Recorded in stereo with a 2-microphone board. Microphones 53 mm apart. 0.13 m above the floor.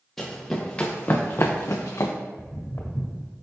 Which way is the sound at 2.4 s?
65° left (ahead or behind).